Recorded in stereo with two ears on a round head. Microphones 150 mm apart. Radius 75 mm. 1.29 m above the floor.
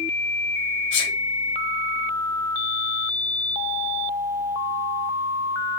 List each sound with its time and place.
0.9 s a sneeze: 80° left, 4 m